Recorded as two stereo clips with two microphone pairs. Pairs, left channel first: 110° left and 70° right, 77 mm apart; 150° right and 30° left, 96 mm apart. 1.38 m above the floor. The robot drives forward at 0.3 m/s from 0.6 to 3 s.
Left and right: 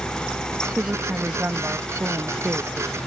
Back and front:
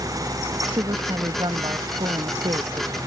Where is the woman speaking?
Straight ahead.